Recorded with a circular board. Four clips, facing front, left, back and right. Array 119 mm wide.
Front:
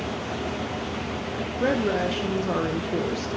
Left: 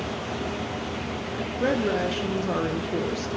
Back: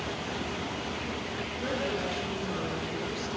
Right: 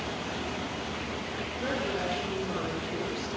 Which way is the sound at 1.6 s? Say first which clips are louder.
Left 8 dB, front 9 dB; 40° left.